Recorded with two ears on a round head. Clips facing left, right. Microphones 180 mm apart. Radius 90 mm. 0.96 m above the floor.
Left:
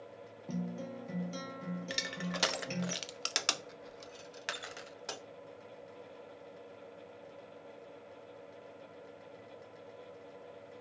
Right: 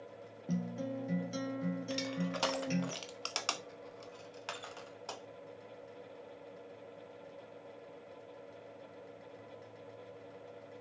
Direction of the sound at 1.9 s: 20° left (ahead or behind).